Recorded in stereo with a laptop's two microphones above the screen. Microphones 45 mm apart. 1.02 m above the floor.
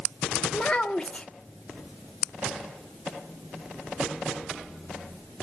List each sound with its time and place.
0.5 s a child speaking: 20° left (ahead or behind), 0.8 m